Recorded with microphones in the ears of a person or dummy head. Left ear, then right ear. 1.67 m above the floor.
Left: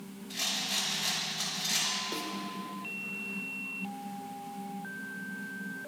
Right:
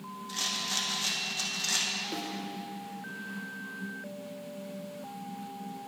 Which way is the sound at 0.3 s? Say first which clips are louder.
Even; 75° right (ahead or behind).